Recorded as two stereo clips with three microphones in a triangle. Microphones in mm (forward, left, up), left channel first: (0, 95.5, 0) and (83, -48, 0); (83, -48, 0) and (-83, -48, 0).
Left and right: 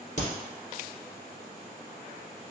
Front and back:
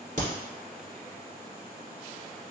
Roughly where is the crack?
Behind left.